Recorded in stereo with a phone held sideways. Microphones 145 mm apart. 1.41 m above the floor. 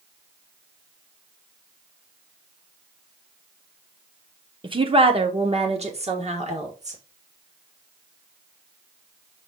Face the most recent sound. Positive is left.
turn(degrees=-50)  # may be behind; listen again after turning